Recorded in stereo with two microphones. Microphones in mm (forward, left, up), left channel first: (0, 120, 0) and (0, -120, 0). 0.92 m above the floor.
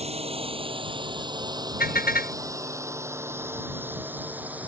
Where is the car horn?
40° left (ahead or behind).